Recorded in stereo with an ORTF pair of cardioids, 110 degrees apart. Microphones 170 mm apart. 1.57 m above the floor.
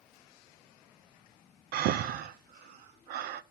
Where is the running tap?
I don't hear a running tap.